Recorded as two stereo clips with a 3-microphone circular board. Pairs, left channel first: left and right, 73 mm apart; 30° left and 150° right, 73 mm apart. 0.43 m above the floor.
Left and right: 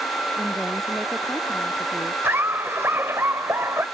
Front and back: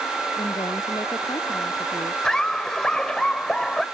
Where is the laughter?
45° right.